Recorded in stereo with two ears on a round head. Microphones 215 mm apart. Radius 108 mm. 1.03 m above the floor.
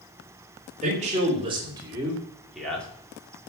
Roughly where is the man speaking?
Right.